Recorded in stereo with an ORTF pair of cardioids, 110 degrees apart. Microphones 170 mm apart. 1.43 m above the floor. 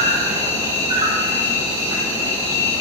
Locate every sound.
0.0 s an insect: 25° right, 1.0 m